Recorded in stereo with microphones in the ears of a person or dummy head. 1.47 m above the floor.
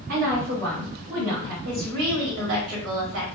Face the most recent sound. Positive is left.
turn(degrees=-75)  # may be behind; listen again after turning